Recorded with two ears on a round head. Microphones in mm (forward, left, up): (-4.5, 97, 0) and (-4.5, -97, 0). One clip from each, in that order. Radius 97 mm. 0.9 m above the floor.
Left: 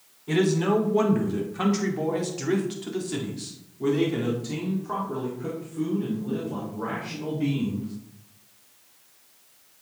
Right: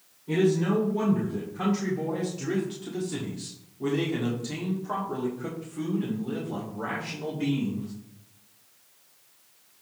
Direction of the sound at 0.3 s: 55° left (ahead or behind).